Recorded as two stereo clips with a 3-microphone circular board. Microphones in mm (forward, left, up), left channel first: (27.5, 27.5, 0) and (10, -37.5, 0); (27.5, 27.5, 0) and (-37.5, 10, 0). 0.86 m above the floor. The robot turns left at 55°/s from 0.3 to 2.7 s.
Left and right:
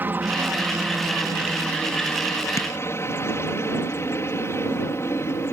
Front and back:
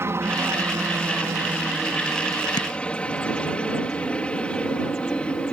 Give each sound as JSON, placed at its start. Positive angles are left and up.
{"t": 0.0, "sound": "a helicopter", "azimuth_deg": -150}
{"t": 2.6, "sound": "tapping", "azimuth_deg": 30}